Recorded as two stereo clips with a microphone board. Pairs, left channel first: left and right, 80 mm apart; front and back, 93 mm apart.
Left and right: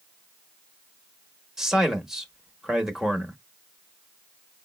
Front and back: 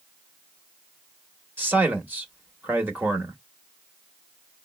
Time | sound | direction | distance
1.6 | a man speaking | 160° right | 0.8 m